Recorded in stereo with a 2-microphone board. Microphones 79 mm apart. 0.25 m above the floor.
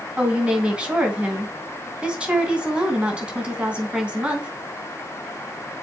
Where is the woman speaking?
15° right (ahead or behind), 3 m.